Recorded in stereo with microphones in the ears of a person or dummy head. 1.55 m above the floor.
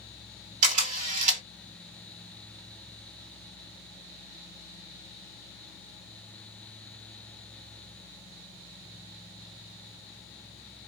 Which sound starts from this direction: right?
A camera shutter, at 0.6 s.